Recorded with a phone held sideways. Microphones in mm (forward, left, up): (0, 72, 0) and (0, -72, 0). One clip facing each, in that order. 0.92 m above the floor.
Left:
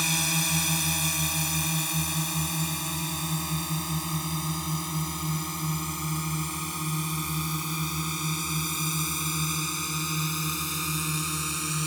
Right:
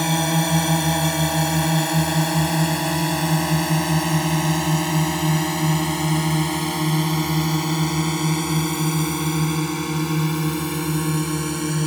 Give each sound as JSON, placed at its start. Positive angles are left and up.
{"t": 0.0, "sound": "a drone", "side_deg": -60}